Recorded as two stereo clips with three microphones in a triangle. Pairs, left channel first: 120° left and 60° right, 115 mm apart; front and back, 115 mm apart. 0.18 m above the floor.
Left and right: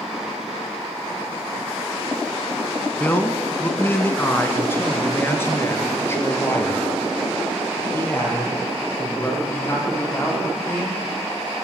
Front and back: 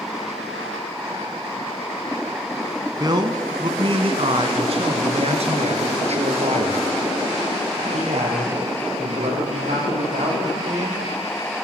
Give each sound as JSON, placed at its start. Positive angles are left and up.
{"t": 3.0, "sound": "a man speaking", "azimuth_deg": 180, "distance_m": 1.2}